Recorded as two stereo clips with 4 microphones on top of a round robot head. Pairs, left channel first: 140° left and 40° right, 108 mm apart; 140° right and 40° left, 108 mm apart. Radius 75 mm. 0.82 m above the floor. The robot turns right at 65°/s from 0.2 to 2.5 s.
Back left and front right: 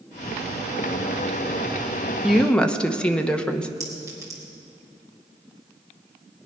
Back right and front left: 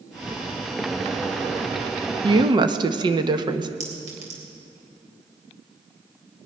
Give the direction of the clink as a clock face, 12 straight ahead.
11 o'clock.